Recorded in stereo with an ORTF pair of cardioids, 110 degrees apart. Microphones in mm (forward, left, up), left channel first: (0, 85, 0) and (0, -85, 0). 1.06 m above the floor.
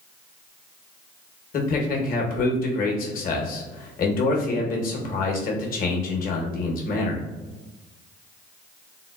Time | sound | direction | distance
1.5 | a man speaking | 55° left | 0.9 m